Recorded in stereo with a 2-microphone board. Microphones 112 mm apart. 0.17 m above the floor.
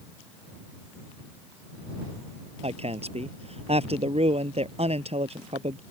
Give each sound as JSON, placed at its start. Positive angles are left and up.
{"t": 2.6, "sound": "a woman speaking", "side_deg": -60}